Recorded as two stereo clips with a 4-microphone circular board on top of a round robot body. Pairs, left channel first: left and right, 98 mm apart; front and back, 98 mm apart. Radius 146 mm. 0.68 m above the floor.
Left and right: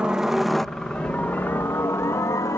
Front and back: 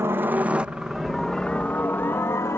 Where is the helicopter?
160° right; by 2.6 s 50° left.